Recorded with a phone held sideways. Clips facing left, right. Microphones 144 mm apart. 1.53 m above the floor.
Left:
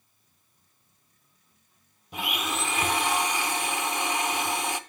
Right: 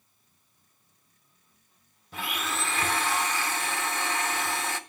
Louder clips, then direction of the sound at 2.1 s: Left 2 dB; 15° left (ahead or behind).